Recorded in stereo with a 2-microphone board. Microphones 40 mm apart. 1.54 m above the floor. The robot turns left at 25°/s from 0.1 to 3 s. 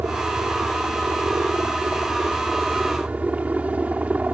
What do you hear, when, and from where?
0.0 s a helicopter: 70° right; by 4.3 s 145° right